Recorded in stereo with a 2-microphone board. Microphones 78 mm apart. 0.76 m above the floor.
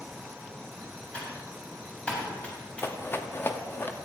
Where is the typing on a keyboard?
15° left (ahead or behind), 3 m.